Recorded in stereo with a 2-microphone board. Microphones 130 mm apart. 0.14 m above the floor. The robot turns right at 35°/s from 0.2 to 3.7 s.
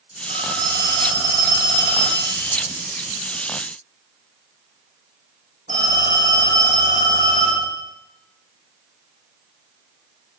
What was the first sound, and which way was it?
A phone ringing, 135° left.